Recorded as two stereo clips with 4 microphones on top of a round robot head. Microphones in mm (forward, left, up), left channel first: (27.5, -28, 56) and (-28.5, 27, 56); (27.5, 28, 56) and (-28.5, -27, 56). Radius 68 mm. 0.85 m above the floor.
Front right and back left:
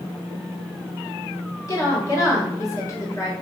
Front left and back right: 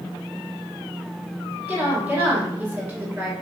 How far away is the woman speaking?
About 1.1 m.